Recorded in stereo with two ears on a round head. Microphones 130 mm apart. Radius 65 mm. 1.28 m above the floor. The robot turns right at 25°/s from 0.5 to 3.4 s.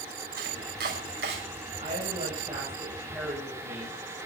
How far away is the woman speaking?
About 7.5 m.